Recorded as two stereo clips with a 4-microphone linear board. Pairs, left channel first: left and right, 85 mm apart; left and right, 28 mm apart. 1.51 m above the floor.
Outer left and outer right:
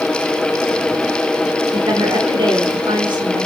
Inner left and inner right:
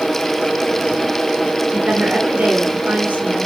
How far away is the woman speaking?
About 6 m.